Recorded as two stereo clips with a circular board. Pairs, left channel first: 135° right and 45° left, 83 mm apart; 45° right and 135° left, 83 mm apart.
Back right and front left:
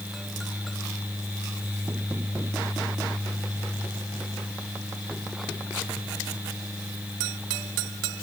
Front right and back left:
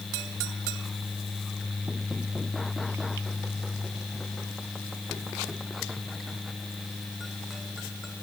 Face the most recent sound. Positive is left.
No sound to turn to.